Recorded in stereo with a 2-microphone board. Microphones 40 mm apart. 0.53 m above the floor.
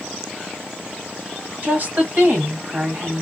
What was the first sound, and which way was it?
A woman speaking, 35° right (ahead or behind).